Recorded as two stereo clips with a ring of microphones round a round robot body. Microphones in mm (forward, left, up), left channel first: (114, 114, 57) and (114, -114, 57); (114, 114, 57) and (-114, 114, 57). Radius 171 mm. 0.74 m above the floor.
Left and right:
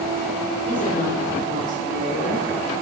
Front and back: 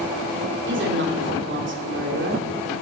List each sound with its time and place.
0.7 s a woman speaking: 150° left, 3 m